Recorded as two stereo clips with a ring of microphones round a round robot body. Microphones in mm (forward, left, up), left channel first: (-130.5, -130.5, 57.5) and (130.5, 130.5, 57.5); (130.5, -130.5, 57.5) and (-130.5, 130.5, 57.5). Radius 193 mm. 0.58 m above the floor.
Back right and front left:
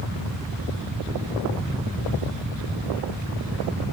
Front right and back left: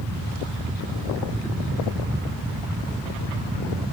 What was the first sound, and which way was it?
Only background noise.